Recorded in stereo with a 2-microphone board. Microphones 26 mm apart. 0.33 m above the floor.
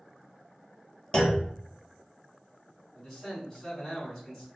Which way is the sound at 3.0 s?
10° left (ahead or behind).